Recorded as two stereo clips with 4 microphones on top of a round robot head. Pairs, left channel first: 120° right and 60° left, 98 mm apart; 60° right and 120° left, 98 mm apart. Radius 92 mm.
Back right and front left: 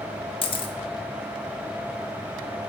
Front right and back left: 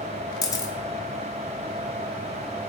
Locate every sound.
0.4 s a camera shutter: 105° right, 1.1 m